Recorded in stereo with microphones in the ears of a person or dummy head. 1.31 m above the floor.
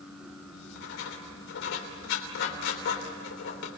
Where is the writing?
60° left (ahead or behind), 3.5 m.